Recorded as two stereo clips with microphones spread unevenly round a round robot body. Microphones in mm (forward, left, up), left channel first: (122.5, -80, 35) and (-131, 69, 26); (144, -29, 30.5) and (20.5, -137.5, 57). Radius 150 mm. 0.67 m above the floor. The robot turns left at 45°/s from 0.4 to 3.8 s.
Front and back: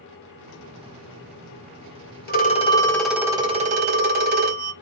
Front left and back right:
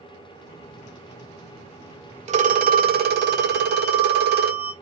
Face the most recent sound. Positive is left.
turn(degrees=-155)